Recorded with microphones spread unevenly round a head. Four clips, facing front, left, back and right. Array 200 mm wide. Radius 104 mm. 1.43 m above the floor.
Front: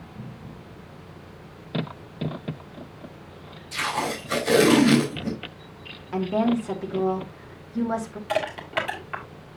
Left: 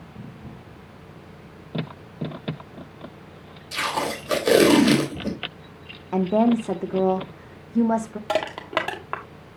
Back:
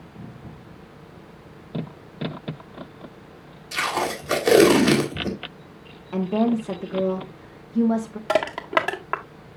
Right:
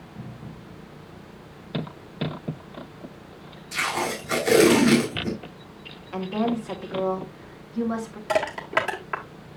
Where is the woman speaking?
105° left, 1.7 m.